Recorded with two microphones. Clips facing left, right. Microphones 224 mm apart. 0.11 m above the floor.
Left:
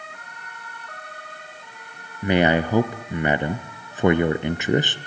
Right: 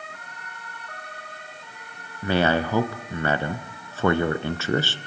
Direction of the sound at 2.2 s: 15° left (ahead or behind).